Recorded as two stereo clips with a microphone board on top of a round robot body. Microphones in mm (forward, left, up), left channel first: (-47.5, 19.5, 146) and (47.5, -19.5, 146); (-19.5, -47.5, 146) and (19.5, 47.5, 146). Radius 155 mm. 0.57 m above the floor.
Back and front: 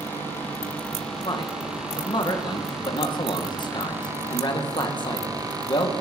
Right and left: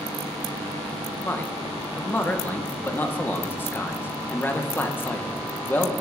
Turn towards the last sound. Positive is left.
turn(degrees=180)